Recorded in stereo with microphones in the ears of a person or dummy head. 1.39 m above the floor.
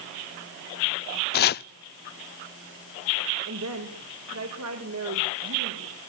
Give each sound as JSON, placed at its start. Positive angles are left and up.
{"t": 1.3, "sound": "chopping", "side_deg": 45, "distance_m": 0.5}
{"t": 3.5, "sound": "a woman speaking", "side_deg": -80, "distance_m": 4.5}